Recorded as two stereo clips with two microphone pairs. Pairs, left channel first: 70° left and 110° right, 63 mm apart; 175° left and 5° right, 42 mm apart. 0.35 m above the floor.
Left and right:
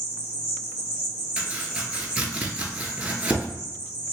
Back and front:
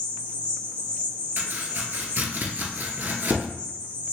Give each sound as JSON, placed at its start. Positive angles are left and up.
{"t": 0.0, "sound": "an insect", "azimuth_deg": -140, "distance_m": 1.7}
{"t": 1.4, "sound": "chopping", "azimuth_deg": -40, "distance_m": 0.8}